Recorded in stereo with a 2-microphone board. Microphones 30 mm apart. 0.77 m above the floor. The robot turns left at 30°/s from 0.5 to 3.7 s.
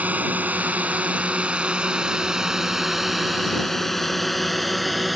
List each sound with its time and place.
0.0 s a drone: 55° right (ahead or behind); by 5.2 s centre (ahead or behind)